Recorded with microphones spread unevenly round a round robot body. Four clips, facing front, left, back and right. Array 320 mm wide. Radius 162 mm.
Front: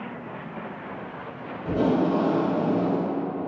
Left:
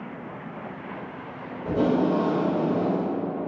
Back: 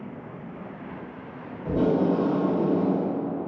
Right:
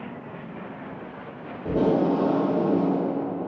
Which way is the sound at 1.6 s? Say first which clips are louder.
Right 1 dB, even; 120° right.